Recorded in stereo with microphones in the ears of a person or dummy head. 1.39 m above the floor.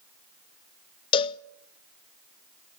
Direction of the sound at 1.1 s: 25° left (ahead or behind).